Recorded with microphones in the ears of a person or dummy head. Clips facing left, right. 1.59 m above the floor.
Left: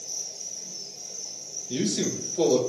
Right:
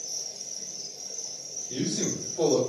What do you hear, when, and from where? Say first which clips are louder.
0.0 s an insect: even; 5° right (ahead or behind), 2.5 m
1.7 s a man speaking: left 3 dB; 30° left (ahead or behind), 2 m